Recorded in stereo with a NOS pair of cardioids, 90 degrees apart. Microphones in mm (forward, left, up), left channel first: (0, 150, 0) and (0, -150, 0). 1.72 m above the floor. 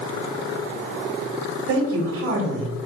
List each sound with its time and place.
1.7 s a man speaking: 50° right, 1.3 m